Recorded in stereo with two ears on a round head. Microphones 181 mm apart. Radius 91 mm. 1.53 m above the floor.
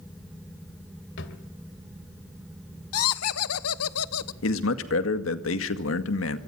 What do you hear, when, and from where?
1.2 s a drawer: 60° left (ahead or behind), 2.5 m
2.9 s laughter: 85° left, 1.1 m
4.4 s a man speaking: 75° left (ahead or behind), 2 m